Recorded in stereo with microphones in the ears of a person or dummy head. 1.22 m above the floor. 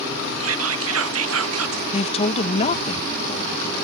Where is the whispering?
75° right (ahead or behind).